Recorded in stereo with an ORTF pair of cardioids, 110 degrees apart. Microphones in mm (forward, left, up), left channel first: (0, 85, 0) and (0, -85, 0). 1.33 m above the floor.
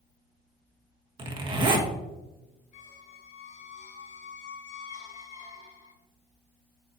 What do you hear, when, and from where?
1.2 s a zipper: 30° right, 1.2 m
2.7 s a squeak: 45° left, 1.3 m